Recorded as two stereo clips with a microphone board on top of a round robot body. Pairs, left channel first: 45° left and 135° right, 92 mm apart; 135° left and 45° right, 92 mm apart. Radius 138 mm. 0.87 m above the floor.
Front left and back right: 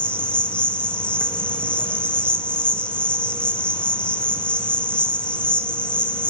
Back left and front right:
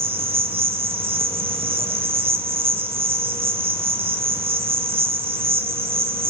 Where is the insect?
35° right, 1.8 m.